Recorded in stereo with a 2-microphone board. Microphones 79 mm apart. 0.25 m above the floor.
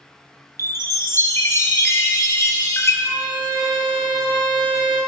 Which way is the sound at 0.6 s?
40° left (ahead or behind).